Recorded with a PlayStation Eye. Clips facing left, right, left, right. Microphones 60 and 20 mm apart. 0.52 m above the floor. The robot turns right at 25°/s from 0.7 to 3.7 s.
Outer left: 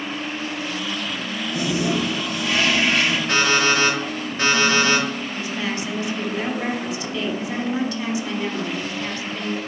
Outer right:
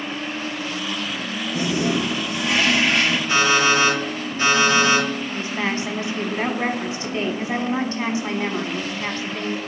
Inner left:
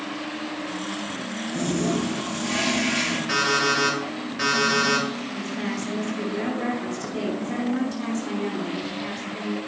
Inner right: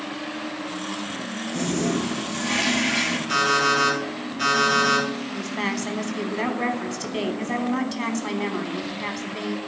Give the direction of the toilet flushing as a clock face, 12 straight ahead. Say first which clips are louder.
Outer right 1 dB, even; 1 o'clock.